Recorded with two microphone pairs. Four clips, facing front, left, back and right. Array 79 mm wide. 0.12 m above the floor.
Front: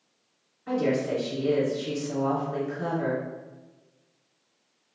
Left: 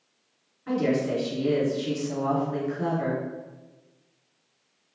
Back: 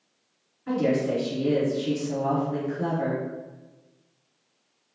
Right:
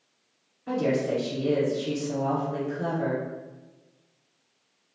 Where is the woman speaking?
80° left, 1.9 m.